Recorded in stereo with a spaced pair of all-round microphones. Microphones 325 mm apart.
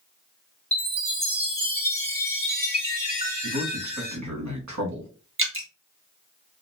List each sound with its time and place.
0.7 s a chime: 20° left (ahead or behind), 1.9 m
3.4 s a man speaking: 60° right (ahead or behind), 1.1 m
5.4 s dripping: 40° right (ahead or behind), 0.8 m